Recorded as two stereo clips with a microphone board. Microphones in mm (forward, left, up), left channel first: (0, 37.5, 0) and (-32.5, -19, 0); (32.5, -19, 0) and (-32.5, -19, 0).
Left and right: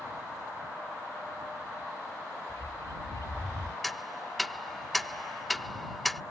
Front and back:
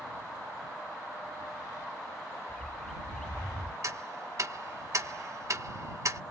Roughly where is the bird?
Left.